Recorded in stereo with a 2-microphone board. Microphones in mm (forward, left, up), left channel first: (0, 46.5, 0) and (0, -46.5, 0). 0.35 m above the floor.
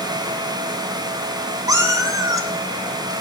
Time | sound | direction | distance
1.7 | a cat meowing | 40° right (ahead or behind) | 1.0 m